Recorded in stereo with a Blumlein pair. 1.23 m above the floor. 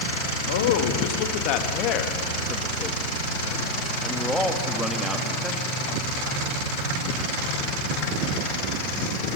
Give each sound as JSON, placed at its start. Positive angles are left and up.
{"t": 0.5, "sound": "a man speaking", "azimuth_deg": 55, "distance_m": 2.5}